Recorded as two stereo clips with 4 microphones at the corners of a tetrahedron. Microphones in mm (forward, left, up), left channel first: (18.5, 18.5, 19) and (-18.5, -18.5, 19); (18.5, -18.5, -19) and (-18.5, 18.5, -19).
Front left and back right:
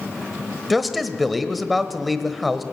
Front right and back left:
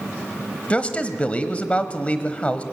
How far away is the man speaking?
About 1.1 m.